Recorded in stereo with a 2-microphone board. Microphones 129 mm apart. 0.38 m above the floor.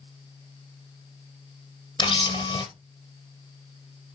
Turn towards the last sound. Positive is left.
turn(degrees=35)  # may be behind; listen again after turning